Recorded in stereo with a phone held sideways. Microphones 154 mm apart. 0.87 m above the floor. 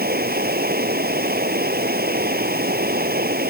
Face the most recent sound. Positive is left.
turn(degrees=-75)  # may be behind; listen again after turning